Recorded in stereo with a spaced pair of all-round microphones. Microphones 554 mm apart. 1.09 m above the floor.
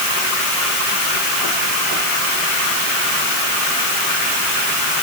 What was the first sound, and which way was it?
Only background noise.